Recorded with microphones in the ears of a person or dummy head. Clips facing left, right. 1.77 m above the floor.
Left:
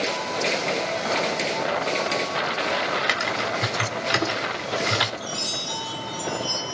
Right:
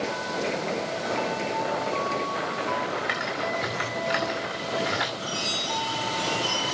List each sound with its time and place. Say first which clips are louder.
3.1 s typing on a keyboard: left 2 dB; 50° left (ahead or behind), 1.9 m
5.2 s a chime: even; 15° left (ahead or behind), 4.5 m